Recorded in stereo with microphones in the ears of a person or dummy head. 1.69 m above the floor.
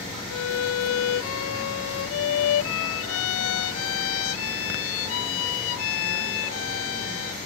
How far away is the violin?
About 0.6 m.